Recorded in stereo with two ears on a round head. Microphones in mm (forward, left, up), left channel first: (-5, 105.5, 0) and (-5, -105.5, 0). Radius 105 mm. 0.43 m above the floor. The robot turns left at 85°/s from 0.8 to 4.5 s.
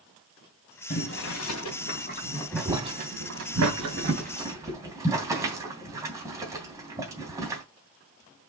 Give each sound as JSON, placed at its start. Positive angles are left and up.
{"t": 0.9, "sound": "boiling", "side_deg": 35, "distance_m": 3.0}